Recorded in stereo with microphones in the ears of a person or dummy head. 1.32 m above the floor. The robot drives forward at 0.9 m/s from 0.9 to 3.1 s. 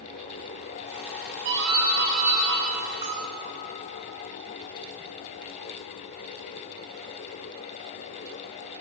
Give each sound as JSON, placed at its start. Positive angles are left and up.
{"t": 1.4, "sound": "a doorbell", "side_deg": -60, "distance_m": 1.0}
{"t": 3.0, "sound": "a bell", "side_deg": -30, "distance_m": 0.7}